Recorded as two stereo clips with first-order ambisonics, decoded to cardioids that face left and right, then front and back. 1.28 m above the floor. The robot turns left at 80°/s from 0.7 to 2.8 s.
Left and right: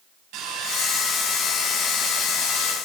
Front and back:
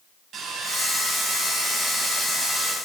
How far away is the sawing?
About 4 m.